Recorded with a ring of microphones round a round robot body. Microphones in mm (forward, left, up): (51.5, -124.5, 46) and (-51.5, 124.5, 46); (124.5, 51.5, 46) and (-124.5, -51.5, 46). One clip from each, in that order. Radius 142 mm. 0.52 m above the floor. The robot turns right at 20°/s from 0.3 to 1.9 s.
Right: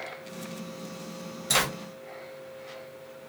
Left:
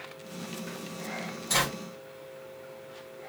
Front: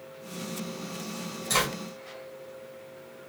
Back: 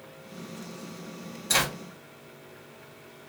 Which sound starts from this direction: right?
A zipper, at 1.5 s.